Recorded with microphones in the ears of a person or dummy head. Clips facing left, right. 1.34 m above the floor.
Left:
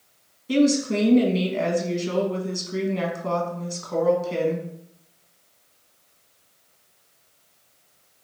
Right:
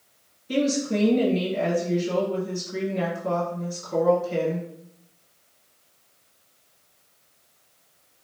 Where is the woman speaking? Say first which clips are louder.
Left 4 dB; 75° left (ahead or behind), 1.5 m.